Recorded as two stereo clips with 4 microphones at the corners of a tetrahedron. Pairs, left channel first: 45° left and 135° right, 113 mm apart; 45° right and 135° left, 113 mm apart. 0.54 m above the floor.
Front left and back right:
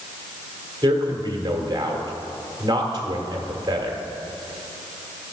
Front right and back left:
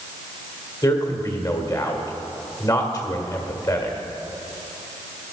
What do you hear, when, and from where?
0.8 s a man speaking: 90° right, 1.7 m